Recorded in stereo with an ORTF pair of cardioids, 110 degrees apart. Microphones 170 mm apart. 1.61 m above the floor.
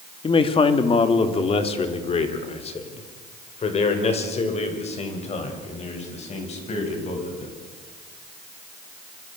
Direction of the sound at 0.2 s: 30° left.